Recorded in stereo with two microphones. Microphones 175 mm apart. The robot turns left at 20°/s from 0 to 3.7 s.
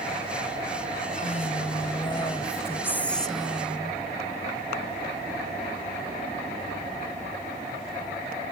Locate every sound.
1.2 s a woman speaking: 45° left; by 4.0 s 5° right